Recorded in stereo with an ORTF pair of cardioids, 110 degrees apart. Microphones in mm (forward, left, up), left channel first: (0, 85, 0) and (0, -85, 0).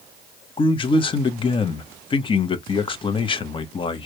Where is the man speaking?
30° left, 1.0 m.